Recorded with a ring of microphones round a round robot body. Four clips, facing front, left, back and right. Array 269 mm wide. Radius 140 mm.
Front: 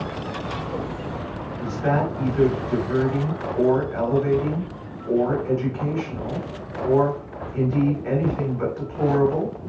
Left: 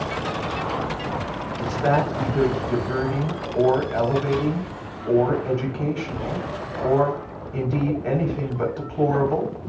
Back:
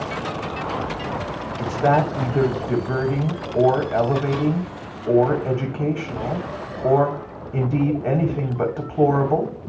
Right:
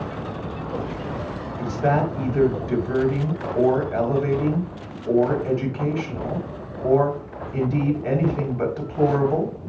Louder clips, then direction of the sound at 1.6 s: Even, back 4 dB; 165° right.